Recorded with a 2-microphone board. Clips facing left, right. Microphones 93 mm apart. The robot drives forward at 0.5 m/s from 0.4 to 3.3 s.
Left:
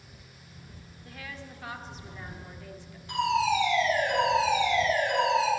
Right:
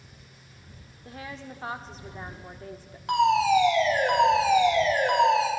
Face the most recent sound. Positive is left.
turn(degrees=-75)  # may be behind; listen again after turning